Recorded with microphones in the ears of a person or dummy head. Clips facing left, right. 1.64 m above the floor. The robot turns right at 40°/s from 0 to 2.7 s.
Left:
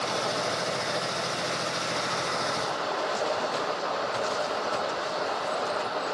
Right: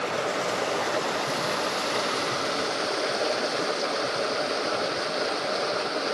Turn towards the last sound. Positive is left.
turn(degrees=-45)